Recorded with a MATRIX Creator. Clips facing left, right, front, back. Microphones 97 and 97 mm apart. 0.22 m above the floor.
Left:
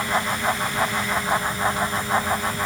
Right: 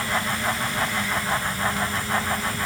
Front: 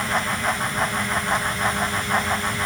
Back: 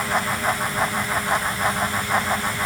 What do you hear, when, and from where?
Only background noise.